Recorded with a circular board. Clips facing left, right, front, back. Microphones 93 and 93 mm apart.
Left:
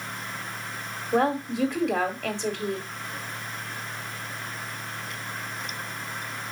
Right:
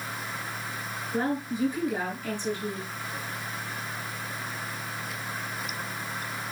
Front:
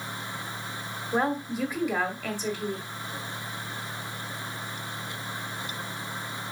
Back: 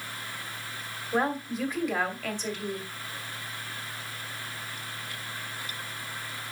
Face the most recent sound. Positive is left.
turn(degrees=85)